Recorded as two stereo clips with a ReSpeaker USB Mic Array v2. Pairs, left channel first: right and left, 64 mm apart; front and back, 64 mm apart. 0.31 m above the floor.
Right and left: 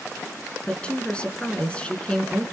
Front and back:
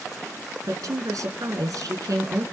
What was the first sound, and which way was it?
A woman speaking, 160° right.